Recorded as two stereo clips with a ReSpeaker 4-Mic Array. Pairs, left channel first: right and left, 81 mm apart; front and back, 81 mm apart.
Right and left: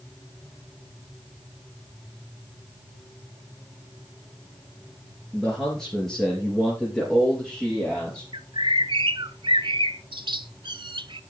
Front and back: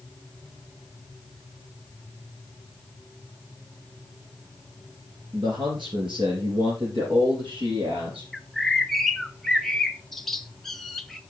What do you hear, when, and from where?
5.3 s a man speaking: 175° right, 3 m; by 8.2 s 170° right, 5 m
8.3 s a bird: 85° left, 0.5 m